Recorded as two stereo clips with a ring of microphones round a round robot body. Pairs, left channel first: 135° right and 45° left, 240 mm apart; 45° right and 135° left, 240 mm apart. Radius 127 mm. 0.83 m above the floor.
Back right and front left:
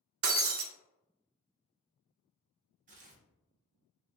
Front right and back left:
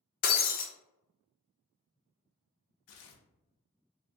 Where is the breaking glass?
10° left, 0.5 m.